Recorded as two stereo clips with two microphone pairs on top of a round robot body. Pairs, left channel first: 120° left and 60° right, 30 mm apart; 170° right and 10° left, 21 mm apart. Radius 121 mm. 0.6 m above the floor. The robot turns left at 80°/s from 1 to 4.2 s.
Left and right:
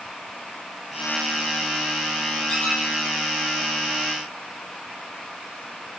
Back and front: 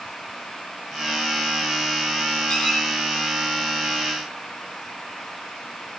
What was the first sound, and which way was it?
A squeak, straight behind.